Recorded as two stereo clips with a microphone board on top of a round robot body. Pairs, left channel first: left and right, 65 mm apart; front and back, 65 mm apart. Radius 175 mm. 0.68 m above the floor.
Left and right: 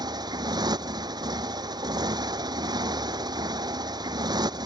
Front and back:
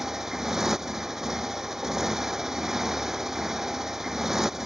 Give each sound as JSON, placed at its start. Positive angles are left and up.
{"t": 0.0, "sound": "a motorcycle", "azimuth_deg": -95}